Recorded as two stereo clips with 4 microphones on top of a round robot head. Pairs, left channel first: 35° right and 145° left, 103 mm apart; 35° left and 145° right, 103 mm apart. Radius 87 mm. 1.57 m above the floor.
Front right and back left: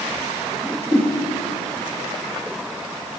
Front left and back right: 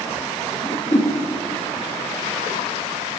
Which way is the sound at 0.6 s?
70° left.